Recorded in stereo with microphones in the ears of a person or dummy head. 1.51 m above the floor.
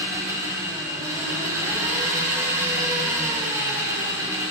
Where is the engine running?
15° right (ahead or behind), 4 m.